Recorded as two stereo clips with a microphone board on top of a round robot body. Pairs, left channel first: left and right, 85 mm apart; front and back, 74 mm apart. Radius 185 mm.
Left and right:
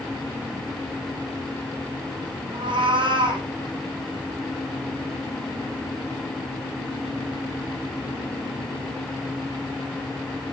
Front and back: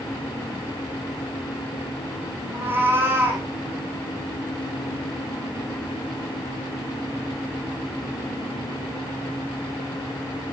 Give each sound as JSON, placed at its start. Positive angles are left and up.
{"t": 2.5, "sound": "a cat meowing", "azimuth_deg": -115, "distance_m": 5.5}